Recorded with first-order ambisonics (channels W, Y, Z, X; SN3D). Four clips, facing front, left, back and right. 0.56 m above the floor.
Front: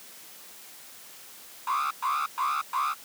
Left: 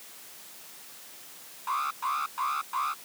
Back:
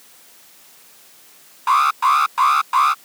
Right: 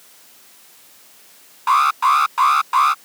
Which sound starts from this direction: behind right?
An alarm, at 1.7 s.